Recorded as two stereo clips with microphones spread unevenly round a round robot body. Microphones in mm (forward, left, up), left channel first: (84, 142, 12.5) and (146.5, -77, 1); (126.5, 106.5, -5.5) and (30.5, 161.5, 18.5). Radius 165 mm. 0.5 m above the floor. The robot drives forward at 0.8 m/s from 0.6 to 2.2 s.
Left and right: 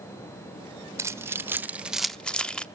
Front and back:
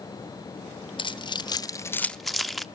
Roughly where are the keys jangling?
Ahead.